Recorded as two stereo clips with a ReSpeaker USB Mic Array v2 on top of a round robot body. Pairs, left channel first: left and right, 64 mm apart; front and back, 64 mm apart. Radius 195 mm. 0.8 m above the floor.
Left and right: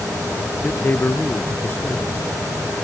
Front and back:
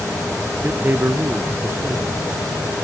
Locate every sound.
0.6 s a man speaking: 140° left, 0.9 m